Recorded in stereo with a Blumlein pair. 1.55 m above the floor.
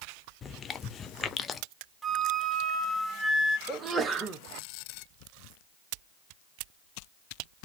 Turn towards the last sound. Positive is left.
turn(degrees=-15)